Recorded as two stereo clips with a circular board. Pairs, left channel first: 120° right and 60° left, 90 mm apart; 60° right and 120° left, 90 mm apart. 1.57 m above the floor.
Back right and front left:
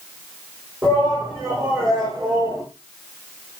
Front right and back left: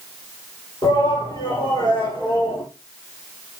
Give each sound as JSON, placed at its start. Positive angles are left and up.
{"t": 0.8, "sound": "a shout", "azimuth_deg": -25, "distance_m": 8.0}